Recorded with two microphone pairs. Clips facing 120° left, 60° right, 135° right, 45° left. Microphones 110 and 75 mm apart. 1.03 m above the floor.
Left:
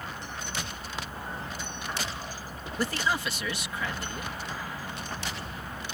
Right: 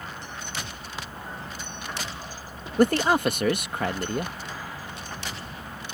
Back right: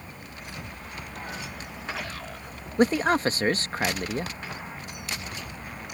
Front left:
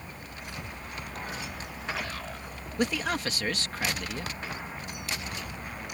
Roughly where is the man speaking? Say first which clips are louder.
Right 10 dB, back right 8 dB; right.